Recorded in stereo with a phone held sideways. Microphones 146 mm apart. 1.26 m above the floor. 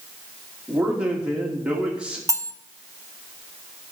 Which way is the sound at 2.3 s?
20° right (ahead or behind).